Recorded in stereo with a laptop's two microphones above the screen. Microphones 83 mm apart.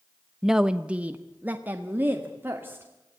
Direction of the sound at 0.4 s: 5° right (ahead or behind).